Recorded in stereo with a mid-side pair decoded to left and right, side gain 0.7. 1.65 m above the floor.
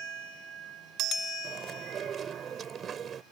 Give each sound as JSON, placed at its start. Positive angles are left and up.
{"t": 1.4, "sound": "chewing", "azimuth_deg": -35}